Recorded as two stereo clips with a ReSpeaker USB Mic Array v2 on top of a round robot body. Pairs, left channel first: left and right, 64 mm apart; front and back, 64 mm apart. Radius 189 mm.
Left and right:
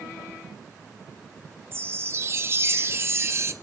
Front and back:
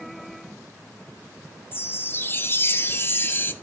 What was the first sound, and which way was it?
A chime, 50° right.